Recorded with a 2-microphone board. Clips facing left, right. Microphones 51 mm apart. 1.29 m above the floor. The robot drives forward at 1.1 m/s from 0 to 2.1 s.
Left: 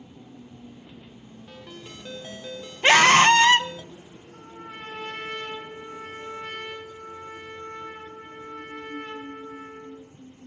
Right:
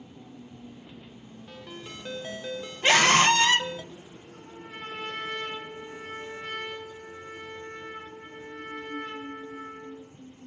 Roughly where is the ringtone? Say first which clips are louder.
Right 1 dB; centre.